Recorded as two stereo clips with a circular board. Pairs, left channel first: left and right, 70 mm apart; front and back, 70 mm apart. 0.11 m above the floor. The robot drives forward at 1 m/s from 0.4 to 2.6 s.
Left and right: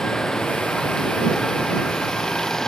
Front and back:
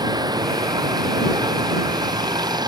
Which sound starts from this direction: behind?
Running water, at 0.0 s.